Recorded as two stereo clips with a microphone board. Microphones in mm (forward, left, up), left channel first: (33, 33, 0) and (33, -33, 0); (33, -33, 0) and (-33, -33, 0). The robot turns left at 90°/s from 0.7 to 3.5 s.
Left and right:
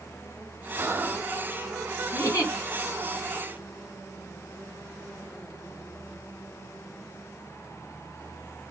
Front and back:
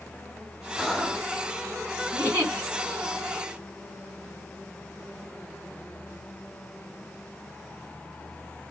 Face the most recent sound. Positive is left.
turn(degrees=15)